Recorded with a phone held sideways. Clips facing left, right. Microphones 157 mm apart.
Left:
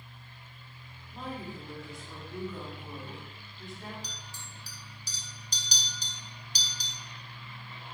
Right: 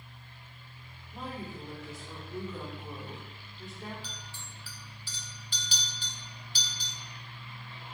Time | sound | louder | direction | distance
1.1 | a woman speaking | left 1 dB | 5° right (ahead or behind) | 1.7 m
4.0 | a clink | even | 40° left (ahead or behind) | 0.7 m